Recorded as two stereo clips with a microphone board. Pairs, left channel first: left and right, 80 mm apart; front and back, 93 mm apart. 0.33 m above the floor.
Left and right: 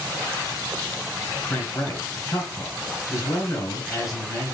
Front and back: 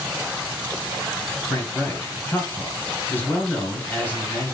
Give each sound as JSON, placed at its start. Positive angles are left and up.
{"t": 1.5, "sound": "a man speaking", "azimuth_deg": 60, "distance_m": 2.0}